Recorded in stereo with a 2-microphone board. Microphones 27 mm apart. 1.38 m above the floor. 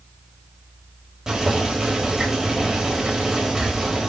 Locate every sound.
1.3 s boiling: 25° right (ahead or behind), 5 m